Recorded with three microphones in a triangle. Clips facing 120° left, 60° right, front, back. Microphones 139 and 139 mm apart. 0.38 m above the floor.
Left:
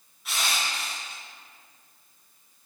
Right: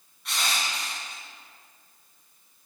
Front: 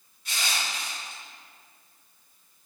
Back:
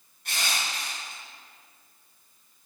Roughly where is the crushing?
Behind right.